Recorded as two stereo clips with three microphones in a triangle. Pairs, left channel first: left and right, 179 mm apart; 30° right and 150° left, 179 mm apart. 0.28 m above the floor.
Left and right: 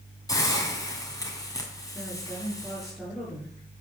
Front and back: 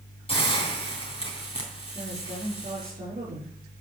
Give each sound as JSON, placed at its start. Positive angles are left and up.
{"t": 0.3, "sound": "a hiss", "azimuth_deg": 20, "distance_m": 3.0}
{"t": 1.9, "sound": "a woman speaking", "azimuth_deg": 180, "distance_m": 6.0}